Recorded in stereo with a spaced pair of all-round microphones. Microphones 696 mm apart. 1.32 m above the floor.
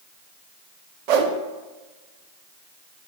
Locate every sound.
1.1 s a whoosh: 70° right (ahead or behind), 0.6 m